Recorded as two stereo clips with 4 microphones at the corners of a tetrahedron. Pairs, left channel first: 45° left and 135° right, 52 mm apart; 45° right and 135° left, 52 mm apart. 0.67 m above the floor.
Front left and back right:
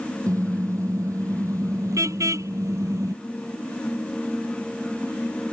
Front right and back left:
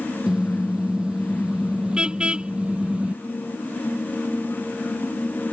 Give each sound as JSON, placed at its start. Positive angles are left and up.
{"t": 0.3, "sound": "a car horn", "azimuth_deg": -145}